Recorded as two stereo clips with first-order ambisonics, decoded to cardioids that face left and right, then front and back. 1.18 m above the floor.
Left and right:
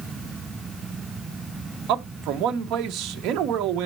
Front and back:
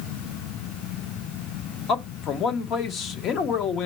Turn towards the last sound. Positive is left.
turn(degrees=-50)